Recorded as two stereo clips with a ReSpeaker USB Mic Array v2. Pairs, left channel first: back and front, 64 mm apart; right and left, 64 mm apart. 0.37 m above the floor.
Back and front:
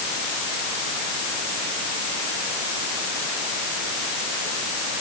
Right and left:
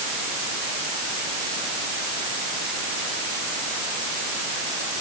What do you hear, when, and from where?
Only background noise.